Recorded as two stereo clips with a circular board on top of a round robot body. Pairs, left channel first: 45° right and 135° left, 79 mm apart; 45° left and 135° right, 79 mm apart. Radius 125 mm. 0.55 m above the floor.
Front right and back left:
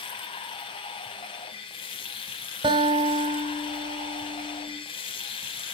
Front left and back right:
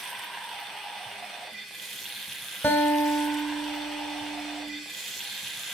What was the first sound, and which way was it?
Running water, 45° right.